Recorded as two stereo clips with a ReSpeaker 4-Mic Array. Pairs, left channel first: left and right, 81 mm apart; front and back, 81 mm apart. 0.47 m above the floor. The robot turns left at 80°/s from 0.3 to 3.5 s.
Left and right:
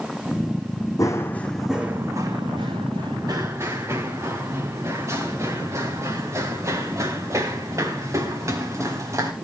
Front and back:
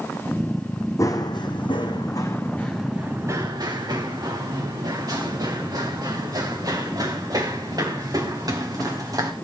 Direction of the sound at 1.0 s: 50° left.